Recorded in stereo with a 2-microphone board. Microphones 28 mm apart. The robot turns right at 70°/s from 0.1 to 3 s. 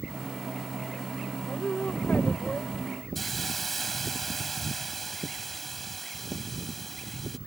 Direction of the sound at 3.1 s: 5° left (ahead or behind).